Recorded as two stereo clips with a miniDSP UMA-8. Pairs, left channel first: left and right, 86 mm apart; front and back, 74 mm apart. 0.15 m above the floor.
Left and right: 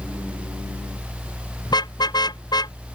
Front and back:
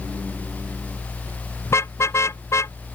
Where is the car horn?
55° left; by 2.8 s 50° left.